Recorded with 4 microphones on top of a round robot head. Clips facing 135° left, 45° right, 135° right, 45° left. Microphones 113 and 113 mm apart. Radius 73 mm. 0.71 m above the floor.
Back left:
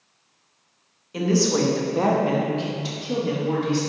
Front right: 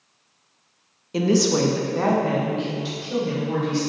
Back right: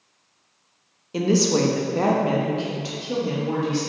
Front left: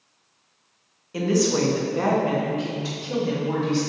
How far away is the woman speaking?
About 0.6 m.